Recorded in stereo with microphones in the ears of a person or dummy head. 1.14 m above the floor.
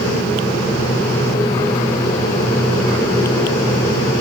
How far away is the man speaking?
I don't hear a man speaking.